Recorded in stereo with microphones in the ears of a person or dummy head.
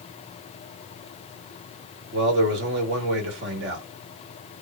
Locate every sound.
2.1 s a man speaking: 60° right (ahead or behind), 1.5 m